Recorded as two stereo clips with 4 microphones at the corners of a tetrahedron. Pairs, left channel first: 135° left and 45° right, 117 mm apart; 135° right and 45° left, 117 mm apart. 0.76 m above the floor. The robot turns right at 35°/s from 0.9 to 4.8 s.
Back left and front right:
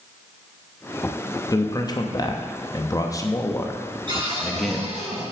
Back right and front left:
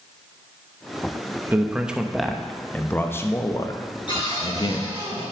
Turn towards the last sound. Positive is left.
turn(degrees=-65)